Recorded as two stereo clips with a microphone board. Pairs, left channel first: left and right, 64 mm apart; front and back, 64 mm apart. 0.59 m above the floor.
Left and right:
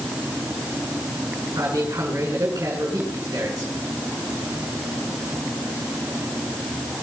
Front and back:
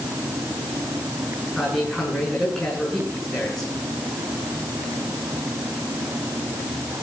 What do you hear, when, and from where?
1.6 s a man speaking: 85° right, 7.5 m